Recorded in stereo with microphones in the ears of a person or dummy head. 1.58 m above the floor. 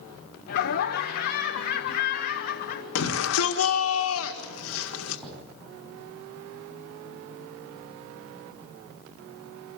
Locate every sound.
0.5 s laughter: 65° left (ahead or behind), 1.2 m
3.0 s a shout: 85° left, 1.6 m
5.2 s knocking: 10° right (ahead or behind), 7 m